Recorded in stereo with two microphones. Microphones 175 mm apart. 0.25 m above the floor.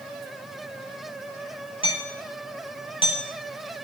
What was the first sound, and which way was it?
Hammering, 30° left (ahead or behind).